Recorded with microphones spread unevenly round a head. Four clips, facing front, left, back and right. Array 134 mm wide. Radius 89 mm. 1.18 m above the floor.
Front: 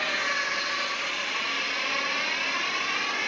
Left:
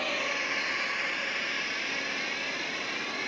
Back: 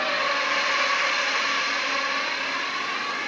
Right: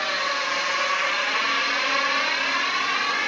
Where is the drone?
160° left; by 3.3 s 85° right.